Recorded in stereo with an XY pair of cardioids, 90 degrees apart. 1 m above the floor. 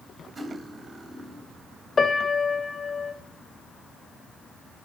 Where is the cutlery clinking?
30° right, 4.5 m.